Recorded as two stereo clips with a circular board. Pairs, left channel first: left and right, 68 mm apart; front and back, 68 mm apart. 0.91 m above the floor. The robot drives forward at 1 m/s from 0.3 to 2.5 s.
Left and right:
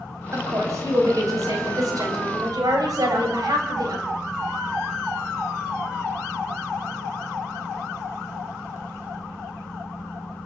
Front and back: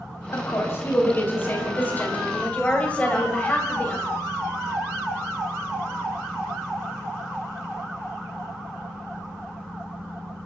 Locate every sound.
0.3 s a woman speaking: 50° right, 5.5 m; by 4.0 s 70° right, 4.5 m